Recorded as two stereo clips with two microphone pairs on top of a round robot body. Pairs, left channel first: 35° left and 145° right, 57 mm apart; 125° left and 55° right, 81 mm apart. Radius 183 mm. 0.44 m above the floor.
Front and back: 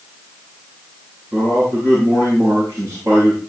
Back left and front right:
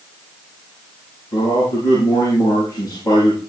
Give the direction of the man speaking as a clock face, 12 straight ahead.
6 o'clock.